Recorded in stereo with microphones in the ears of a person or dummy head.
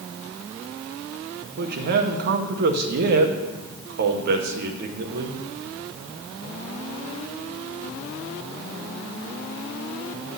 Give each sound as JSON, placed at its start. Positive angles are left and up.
{"t": 1.6, "sound": "a man speaking", "side_deg": -55, "distance_m": 0.8}